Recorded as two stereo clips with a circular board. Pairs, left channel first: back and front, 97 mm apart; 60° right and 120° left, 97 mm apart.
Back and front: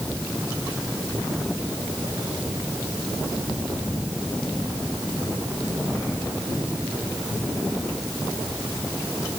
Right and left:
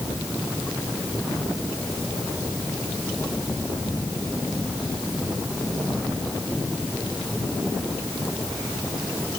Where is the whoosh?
No whoosh in this recording.